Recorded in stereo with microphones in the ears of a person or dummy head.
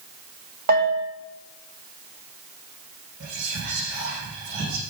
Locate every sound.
0.7 s a bell: 50° right (ahead or behind), 0.7 m
3.2 s whispering: 75° right (ahead or behind), 2 m